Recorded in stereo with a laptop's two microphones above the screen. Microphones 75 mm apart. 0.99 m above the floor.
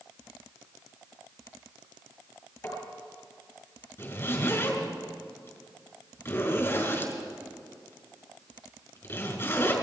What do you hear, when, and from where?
2.6 s tapping: 40° left (ahead or behind), 7 m
4.0 s a zipper: 35° left (ahead or behind), 5.5 m